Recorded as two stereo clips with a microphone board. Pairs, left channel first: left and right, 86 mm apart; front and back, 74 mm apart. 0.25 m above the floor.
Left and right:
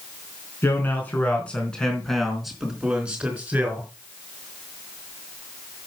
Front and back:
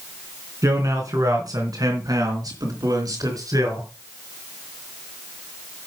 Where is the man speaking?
150° left, 3.5 m; by 3.9 s 155° right, 4 m.